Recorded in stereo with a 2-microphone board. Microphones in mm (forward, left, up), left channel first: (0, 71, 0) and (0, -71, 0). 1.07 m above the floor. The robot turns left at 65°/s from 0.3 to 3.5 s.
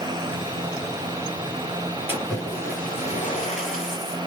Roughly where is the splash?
Behind.